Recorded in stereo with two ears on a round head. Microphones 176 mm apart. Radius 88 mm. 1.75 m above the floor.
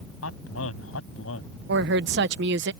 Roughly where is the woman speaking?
Right.